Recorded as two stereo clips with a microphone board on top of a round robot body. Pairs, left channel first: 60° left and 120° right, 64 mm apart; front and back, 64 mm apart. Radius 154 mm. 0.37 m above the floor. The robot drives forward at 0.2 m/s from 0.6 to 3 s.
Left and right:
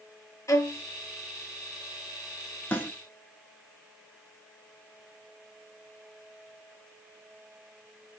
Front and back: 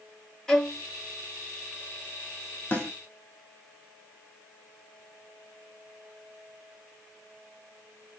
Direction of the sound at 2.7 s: 55° left.